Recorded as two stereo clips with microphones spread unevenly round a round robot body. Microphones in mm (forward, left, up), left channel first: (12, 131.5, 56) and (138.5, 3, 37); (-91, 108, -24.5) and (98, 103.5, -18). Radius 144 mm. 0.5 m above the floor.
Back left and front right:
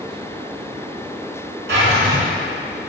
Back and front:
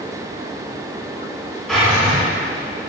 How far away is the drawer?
About 2.5 m.